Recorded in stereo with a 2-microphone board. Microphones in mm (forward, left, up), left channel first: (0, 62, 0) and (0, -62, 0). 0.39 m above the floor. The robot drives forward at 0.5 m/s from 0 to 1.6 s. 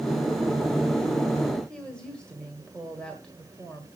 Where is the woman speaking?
5° left (ahead or behind), 1.6 m.